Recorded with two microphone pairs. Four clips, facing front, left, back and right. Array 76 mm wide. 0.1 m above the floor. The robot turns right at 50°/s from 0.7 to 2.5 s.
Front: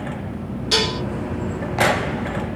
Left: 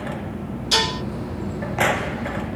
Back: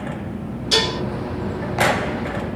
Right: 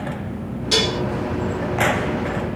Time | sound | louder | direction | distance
0.7 | dishes clattering | right 2 dB, back 1 dB | 40° right | 2 m